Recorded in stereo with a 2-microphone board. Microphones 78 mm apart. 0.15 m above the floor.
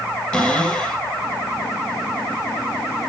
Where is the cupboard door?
10° left (ahead or behind), 3 m.